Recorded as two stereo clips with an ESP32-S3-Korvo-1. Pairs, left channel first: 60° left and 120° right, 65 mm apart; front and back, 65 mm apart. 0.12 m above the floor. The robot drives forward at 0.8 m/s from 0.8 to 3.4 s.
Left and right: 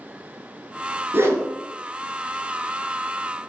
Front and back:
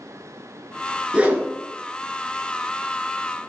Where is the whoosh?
120° right, 0.7 m; by 1.5 s 140° right, 0.8 m.